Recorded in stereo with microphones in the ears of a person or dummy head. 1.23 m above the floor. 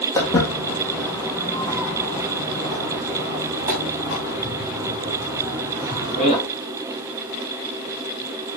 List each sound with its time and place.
0.1 s footsteps: 15° left (ahead or behind), 3 m; by 6.4 s 25° right (ahead or behind), 5.5 m